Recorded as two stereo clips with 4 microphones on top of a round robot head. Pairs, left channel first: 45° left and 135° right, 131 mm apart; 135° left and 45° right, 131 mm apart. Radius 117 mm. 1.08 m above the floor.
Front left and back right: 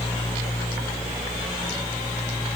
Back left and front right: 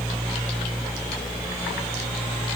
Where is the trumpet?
No trumpet in this recording.